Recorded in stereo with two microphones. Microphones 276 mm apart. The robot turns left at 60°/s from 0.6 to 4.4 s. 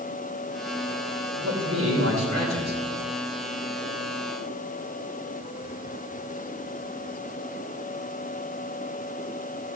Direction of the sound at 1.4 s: 75° right.